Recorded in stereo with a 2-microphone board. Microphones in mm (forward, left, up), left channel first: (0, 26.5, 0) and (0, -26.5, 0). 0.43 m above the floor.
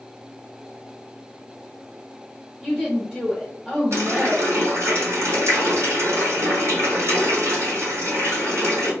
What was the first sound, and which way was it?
A woman speaking, 15° right (ahead or behind).